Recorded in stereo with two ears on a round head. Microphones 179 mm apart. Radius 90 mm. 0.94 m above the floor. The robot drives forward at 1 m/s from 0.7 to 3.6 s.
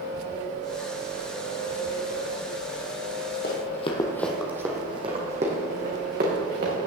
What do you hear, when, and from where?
3.4 s running footsteps: 45° left (ahead or behind), 1.7 m; by 6.7 s 45° right (ahead or behind), 4.5 m